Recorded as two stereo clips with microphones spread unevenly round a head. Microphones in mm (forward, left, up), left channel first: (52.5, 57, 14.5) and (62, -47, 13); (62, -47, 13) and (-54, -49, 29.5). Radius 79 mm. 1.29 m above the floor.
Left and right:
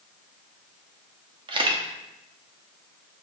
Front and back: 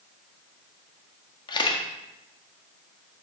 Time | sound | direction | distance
1.5 | a camera shutter | 50° right | 1.3 m